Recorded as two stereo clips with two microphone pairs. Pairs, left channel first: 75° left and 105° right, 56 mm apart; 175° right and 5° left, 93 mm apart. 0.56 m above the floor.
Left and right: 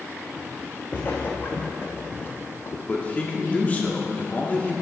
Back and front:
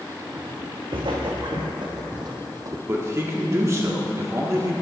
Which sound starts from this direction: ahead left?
A man speaking, at 2.9 s.